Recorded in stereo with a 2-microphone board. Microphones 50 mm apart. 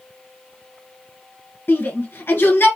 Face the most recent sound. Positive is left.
turn(degrees=45)  # may be behind; listen again after turning